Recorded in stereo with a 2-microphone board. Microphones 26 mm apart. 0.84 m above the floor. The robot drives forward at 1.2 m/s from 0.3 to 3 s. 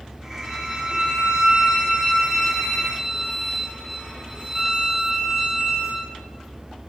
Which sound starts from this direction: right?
A violin, at 0.4 s.